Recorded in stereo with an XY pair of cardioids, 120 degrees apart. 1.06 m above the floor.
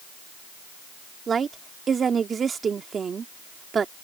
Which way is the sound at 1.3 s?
35° right.